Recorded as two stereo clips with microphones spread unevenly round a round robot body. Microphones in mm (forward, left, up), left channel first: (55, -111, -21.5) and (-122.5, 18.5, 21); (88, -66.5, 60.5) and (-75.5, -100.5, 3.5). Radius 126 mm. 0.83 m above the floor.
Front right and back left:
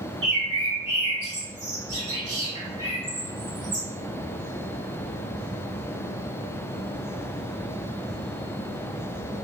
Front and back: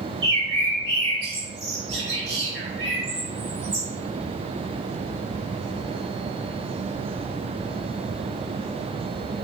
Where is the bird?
160° right, 1.8 m.